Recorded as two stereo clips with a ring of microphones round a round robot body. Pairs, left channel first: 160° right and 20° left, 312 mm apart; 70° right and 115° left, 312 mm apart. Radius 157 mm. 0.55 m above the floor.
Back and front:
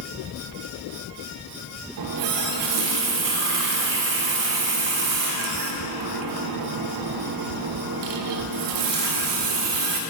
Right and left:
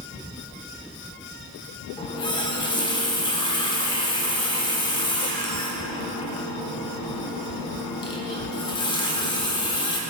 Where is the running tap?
5° left, 1.0 m.